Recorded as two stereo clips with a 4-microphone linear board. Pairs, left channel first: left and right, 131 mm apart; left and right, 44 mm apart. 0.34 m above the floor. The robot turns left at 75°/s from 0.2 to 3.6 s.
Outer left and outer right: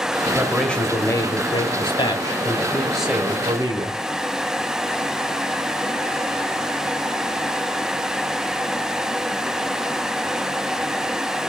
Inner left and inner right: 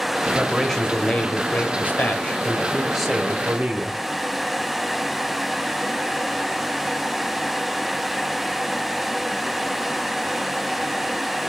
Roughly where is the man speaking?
Behind.